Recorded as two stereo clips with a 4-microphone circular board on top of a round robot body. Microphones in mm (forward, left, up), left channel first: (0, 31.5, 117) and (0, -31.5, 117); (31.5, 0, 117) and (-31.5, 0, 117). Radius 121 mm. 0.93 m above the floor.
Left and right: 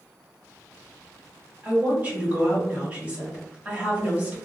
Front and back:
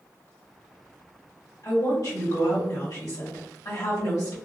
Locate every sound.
1.6 s a woman speaking: 25° right, 1.7 m